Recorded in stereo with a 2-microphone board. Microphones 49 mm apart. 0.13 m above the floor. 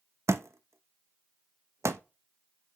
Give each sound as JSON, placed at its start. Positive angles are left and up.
{"t": 0.3, "sound": "a thud", "side_deg": -65, "distance_m": 0.5}